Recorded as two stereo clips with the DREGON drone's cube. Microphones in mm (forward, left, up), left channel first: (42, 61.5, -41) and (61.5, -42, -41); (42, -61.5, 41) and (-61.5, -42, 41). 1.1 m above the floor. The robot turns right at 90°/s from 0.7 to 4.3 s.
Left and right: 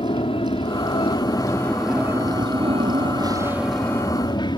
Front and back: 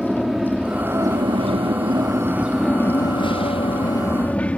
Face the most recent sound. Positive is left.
turn(degrees=65)